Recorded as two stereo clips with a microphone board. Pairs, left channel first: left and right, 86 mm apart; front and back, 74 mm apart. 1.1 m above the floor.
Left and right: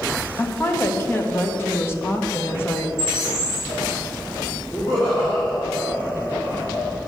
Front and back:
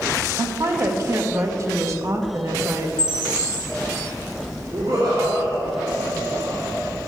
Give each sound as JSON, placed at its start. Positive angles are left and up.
{"t": 0.4, "sound": "a woman speaking", "azimuth_deg": 145, "distance_m": 1.2}
{"t": 3.0, "sound": "a bird", "azimuth_deg": -175, "distance_m": 3.5}
{"t": 4.7, "sound": "laughter", "azimuth_deg": 150, "distance_m": 3.0}